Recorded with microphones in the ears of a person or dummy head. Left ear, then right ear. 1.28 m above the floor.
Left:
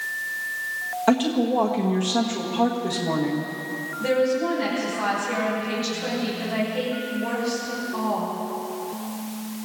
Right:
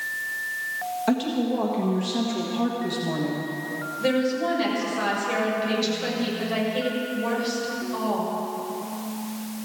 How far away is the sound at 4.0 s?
About 6.5 m.